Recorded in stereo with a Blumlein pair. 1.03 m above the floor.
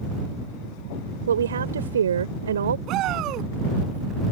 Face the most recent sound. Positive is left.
turn(degrees=-35)